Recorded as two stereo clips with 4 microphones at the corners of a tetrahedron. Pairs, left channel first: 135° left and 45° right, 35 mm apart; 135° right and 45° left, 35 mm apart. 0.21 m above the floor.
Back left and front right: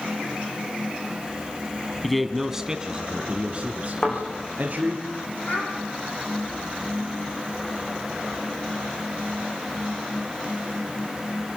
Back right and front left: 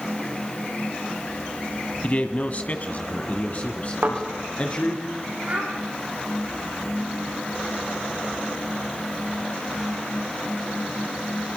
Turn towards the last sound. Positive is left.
turn(degrees=85)